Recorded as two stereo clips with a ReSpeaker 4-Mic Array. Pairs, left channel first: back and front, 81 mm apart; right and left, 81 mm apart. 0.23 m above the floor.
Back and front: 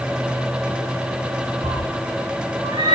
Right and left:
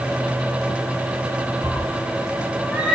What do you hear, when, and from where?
1.6 s a cat meowing: 20° left, 4.5 m; by 3.0 s 10° left, 5 m